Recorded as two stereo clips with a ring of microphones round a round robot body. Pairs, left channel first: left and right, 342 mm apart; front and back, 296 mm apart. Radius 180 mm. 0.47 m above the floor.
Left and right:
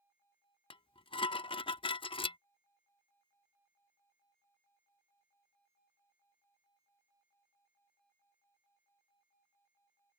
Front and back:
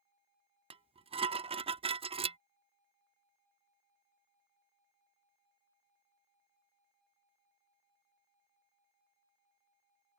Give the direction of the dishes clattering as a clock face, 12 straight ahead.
7 o'clock.